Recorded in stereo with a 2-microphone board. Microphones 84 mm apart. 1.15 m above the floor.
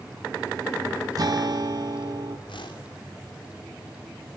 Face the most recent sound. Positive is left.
turn(degrees=90)